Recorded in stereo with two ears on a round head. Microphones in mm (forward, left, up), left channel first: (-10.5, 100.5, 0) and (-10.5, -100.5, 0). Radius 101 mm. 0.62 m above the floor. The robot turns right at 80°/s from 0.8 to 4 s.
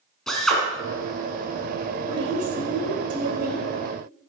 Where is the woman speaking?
165° right, 3 m; by 3.7 s 35° right, 3 m.